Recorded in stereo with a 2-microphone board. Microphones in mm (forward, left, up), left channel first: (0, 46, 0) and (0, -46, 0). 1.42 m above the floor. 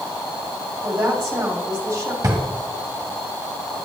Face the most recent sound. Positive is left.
turn(degrees=-35)  # may be behind; listen again after turning